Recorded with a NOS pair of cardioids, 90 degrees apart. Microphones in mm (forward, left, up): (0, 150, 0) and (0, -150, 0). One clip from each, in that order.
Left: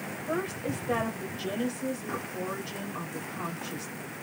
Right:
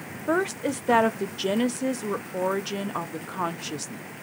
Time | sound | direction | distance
0.3 | a woman speaking | 60° right | 0.9 m